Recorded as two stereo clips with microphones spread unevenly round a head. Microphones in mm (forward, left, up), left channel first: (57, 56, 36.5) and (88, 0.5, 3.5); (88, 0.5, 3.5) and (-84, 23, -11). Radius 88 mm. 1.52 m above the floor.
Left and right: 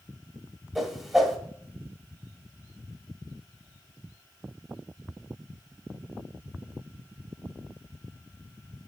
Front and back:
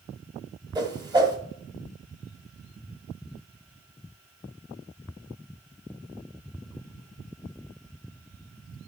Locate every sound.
0.8 s a whoosh: 130° left, 1.4 m